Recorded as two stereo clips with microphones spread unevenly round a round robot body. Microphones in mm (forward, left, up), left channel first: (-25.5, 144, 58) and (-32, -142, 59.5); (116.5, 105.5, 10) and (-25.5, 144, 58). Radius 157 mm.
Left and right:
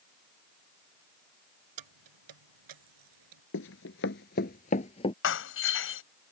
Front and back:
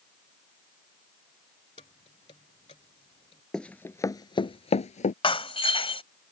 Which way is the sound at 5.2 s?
40° left.